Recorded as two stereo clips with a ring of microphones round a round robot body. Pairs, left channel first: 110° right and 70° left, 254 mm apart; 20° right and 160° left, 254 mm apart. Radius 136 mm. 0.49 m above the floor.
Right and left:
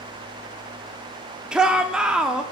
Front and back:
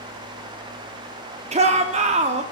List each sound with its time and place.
1.5 s a shout: 150° left, 0.7 m